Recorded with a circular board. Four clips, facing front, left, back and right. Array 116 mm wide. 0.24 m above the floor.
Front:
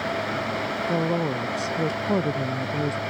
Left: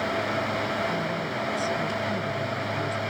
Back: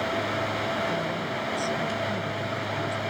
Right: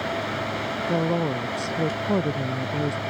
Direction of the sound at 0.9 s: 50° right.